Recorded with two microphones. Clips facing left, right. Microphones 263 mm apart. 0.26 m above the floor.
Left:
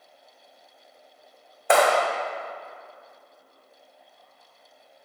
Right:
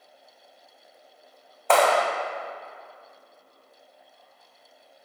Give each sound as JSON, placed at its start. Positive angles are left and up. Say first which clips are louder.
{"t": 1.7, "sound": "a clap", "louder": "left 1 dB", "side_deg": 15, "distance_m": 1.5}